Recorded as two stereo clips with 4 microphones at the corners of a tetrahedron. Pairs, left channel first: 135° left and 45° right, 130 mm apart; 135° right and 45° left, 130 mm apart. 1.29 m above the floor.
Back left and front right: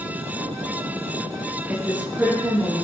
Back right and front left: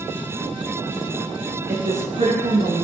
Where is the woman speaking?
25° left, 1.6 m; by 2.9 s 35° left, 2 m.